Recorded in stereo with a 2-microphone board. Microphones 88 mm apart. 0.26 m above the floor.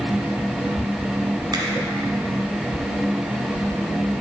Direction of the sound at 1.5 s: 45° right (ahead or behind).